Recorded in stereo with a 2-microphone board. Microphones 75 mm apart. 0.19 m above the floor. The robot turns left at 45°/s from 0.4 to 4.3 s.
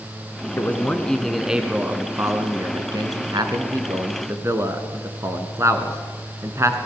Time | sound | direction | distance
0.6 | a man speaking | 35° left | 1.9 m